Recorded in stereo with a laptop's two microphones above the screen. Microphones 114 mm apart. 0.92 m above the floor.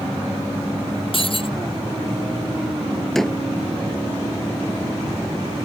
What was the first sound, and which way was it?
Breaking glass, 50° left (ahead or behind).